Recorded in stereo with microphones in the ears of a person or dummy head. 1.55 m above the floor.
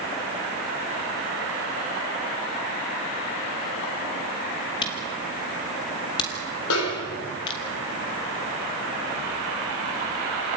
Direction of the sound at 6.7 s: 80° left.